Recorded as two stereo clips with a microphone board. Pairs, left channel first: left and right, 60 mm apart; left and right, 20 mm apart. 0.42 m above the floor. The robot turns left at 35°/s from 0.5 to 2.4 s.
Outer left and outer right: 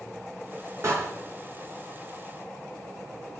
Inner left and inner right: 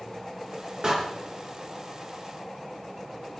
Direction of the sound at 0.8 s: 50° right (ahead or behind).